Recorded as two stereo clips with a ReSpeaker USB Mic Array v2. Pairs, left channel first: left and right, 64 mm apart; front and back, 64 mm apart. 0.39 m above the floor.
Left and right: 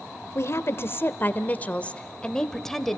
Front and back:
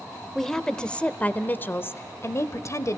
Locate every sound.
0.3 s a woman speaking: 80° left, 1.2 m; by 3.0 s straight ahead, 1.4 m